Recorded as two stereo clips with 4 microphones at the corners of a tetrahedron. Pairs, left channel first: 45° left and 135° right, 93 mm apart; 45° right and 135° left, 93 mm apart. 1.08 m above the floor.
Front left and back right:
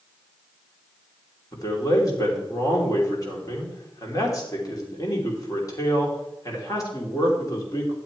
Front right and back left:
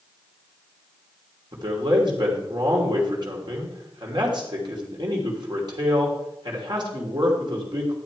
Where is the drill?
No drill in this recording.